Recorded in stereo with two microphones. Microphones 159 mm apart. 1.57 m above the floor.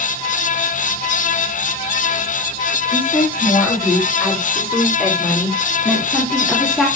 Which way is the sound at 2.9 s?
10° left (ahead or behind).